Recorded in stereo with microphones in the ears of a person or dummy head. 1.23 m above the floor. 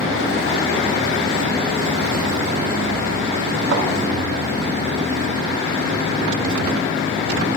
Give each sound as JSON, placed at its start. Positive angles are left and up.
{"t": 3.7, "sound": "a thud", "side_deg": -80, "distance_m": 4.5}